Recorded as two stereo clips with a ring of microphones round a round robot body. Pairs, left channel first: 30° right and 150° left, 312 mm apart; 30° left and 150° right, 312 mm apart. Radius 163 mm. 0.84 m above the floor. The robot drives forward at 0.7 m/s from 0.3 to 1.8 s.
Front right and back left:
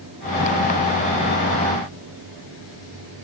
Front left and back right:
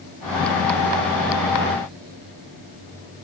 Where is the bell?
I don't hear a bell.